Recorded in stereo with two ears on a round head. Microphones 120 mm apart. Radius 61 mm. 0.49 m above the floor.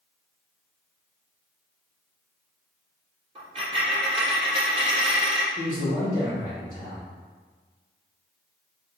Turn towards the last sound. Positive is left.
turn(degrees=-25)  # may be behind; listen again after turning